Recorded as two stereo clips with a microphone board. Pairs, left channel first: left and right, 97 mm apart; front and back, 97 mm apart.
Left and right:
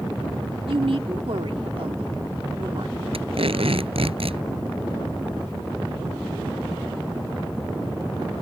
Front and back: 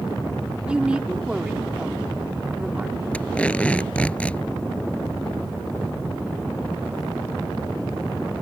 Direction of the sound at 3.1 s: 75° right.